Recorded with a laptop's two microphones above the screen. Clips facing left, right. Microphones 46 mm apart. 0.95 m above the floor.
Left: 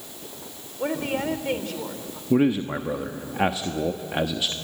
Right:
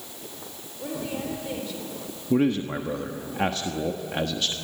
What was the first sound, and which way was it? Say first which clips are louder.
A woman speaking: left 6 dB; 60° left (ahead or behind).